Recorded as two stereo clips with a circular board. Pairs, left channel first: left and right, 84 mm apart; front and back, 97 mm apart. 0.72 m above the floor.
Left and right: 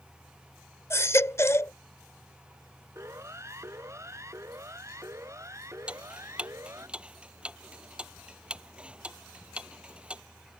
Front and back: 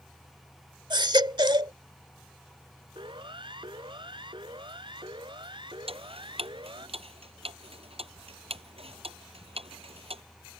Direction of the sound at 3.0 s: 145° right.